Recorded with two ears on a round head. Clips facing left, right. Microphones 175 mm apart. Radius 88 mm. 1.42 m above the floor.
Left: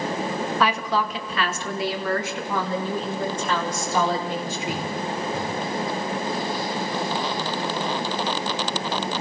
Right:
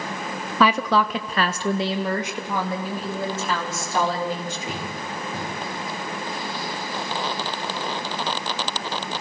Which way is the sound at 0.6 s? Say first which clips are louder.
Right 6 dB; 70° right (ahead or behind).